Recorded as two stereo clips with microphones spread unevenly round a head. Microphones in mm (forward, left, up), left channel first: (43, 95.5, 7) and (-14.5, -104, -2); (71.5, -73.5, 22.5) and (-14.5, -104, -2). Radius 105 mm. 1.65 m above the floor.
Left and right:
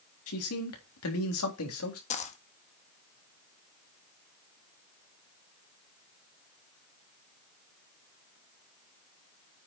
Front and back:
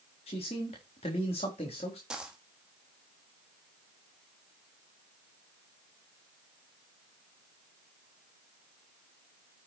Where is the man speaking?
65° left, 3.5 m.